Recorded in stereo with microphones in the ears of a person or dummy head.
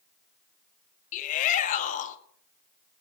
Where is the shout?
45° left (ahead or behind), 1.6 m.